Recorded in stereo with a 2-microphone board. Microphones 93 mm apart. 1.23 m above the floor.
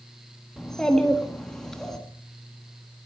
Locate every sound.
0.6 s a child speaking: 5° left (ahead or behind), 1.6 m